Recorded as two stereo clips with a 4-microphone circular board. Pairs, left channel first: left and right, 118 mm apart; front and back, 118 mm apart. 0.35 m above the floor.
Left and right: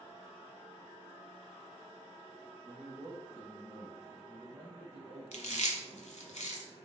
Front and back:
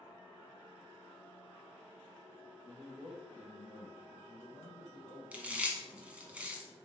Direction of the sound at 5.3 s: 100° left.